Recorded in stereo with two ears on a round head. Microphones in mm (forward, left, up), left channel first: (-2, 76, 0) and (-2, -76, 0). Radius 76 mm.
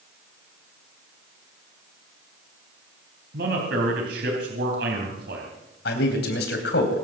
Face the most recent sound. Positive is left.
turn(degrees=70)  # may be behind; listen again after turning